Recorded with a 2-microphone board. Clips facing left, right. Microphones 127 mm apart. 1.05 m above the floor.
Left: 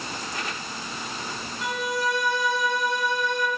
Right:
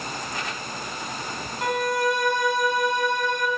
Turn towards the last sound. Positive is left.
turn(degrees=-50)  # may be behind; listen again after turning